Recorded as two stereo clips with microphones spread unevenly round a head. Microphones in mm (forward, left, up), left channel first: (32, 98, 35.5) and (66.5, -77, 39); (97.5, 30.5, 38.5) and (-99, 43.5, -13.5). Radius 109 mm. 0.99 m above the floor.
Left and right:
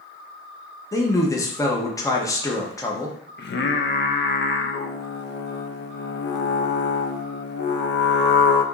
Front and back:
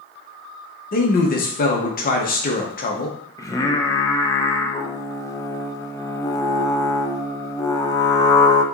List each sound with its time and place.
0.9 s a man speaking: 40° left, 0.8 m
3.4 s singing: 75° left, 0.6 m